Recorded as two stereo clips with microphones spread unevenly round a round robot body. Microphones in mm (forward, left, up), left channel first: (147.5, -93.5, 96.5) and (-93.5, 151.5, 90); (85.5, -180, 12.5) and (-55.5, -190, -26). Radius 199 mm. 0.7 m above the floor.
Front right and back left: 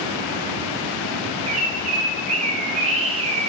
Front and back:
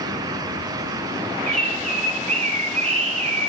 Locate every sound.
1.5 s a bird: 155° right, 0.7 m